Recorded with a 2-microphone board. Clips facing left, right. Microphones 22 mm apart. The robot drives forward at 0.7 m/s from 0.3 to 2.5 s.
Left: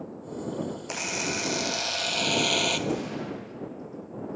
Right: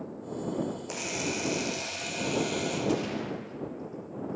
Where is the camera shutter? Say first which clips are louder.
Left 3 dB; 25° left (ahead or behind), 1.4 m; by 2.8 s 70° left (ahead or behind), 0.7 m.